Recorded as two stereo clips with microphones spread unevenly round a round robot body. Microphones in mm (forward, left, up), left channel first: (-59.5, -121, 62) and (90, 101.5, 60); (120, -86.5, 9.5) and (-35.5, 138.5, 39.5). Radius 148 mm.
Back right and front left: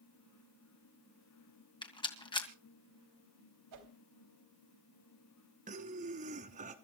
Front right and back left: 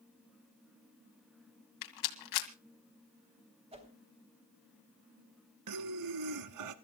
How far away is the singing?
No singing in this recording.